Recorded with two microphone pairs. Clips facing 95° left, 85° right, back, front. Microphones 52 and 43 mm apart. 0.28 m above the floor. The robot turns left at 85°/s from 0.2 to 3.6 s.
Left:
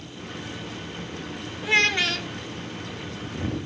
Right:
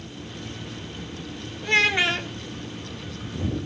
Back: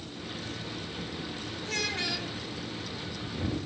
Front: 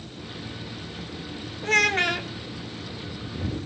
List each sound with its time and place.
1.6 s a child speaking: 10° left, 1.1 m; by 2.3 s 45° right, 1.1 m